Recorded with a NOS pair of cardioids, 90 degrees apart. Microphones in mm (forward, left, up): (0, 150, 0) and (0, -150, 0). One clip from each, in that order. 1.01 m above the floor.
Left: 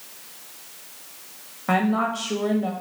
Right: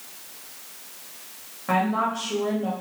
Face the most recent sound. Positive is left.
turn(degrees=25)